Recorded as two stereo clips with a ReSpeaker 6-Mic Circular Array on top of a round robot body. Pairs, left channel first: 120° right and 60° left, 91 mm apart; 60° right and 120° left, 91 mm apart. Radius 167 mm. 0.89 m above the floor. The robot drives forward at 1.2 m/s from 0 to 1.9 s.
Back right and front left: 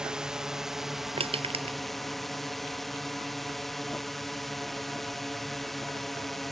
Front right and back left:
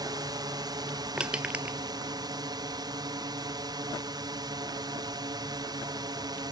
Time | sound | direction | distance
0.0 | a drone | 140° left | ?
1.2 | crushing | 40° left | ?